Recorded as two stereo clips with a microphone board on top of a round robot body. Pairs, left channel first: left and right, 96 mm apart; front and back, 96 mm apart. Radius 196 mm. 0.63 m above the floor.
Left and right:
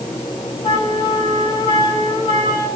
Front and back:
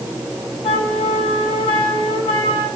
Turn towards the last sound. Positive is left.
turn(degrees=35)